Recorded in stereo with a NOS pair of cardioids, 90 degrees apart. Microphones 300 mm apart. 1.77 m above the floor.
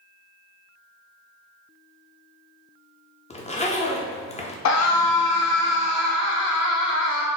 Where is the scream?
60° left, 1.0 m.